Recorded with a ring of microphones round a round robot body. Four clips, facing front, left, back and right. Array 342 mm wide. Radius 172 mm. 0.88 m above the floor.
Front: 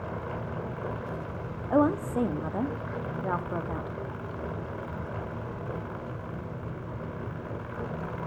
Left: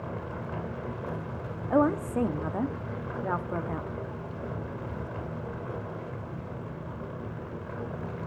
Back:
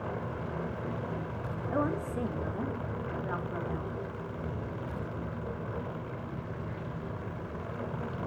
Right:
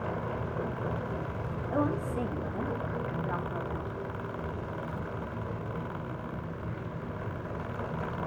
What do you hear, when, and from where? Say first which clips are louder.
1.7 s a woman speaking: left 6 dB, front 8 dB; 45° left, 1.0 m